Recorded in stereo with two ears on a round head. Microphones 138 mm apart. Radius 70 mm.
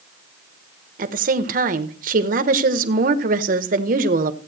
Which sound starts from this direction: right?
A woman speaking, at 1.0 s.